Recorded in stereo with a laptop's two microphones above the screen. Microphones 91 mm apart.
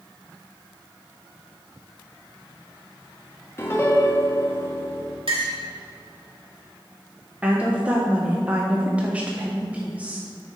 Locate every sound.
3.6 s a piano: 25° left (ahead or behind), 0.8 m
5.3 s a clink: 90° right, 1.9 m
7.4 s a woman speaking: 15° right (ahead or behind), 0.6 m